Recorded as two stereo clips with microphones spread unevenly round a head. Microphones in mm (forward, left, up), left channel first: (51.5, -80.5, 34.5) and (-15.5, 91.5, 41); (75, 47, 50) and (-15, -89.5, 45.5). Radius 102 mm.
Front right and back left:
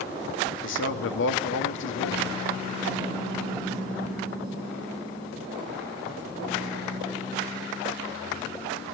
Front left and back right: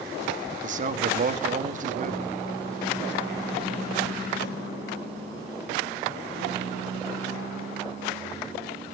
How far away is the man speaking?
About 1.6 m.